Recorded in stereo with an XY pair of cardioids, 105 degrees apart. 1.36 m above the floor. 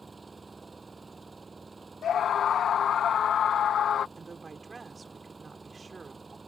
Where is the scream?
55° left.